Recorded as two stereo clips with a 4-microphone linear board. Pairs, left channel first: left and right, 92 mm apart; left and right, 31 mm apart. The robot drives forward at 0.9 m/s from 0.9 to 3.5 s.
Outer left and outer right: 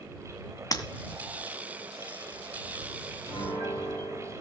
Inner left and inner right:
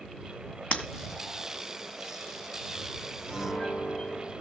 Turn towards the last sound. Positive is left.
turn(degrees=35)  # may be behind; listen again after turning